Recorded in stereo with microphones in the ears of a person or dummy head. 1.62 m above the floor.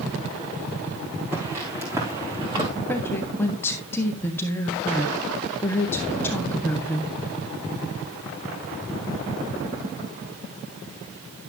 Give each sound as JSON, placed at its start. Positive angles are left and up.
{"t": 1.3, "sound": "footsteps", "side_deg": -15, "distance_m": 5.0}
{"t": 2.9, "sound": "a woman speaking", "side_deg": 5, "distance_m": 1.4}